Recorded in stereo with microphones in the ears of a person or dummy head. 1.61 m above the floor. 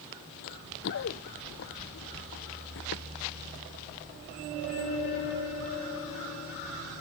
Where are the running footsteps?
50° left (ahead or behind); by 3.0 s 60° left (ahead or behind).